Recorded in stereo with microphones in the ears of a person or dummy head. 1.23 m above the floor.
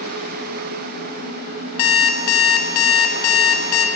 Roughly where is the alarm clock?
Left.